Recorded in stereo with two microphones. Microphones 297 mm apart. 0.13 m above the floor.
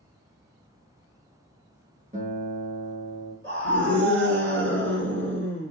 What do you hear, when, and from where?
2.1 s a guitar: 25° right (ahead or behind), 1.6 m
3.4 s a scream: 40° right (ahead or behind), 1.5 m